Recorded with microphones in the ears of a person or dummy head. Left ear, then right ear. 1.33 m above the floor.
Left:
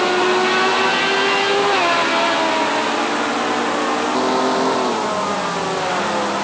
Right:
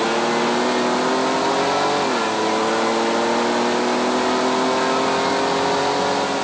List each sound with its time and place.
Only background noise.